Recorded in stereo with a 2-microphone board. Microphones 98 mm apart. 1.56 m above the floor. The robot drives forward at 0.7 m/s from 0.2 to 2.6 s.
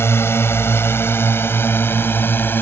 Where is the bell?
I don't hear a bell.